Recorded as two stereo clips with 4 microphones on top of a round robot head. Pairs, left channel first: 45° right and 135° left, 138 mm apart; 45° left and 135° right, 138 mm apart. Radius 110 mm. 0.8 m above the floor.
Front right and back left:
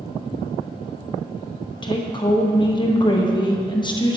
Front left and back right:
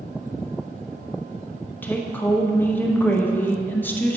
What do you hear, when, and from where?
1.8 s a woman speaking: 20° right, 1.0 m